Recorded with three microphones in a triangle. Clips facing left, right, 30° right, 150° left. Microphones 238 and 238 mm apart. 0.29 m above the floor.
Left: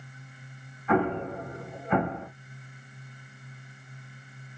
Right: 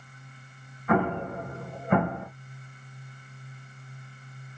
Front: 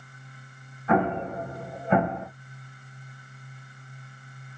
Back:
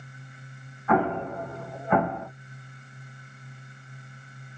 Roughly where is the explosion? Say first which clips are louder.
Even, even; right.